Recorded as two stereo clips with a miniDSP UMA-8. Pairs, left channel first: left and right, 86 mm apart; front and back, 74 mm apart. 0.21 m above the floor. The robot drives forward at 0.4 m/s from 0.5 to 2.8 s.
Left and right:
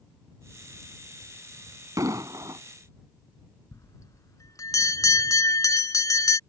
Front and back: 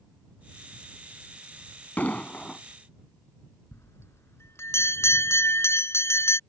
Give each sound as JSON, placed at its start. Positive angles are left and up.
{"t": 2.0, "sound": "an explosion", "azimuth_deg": -60}
{"t": 3.7, "sound": "a bell", "azimuth_deg": 50}